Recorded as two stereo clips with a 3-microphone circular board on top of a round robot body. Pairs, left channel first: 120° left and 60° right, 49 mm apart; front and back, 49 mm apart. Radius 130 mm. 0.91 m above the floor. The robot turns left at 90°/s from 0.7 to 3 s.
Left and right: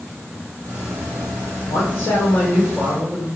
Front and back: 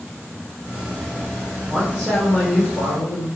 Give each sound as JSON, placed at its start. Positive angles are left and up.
{"t": 1.7, "sound": "a man speaking", "azimuth_deg": 105, "distance_m": 3.5}